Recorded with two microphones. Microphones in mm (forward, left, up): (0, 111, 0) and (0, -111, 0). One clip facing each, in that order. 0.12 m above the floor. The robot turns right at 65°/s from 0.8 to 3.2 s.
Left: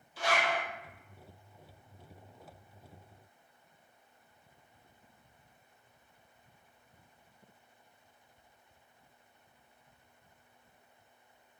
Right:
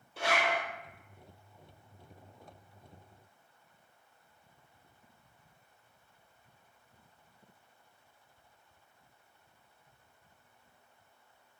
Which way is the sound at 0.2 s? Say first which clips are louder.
Even; 70° right (ahead or behind).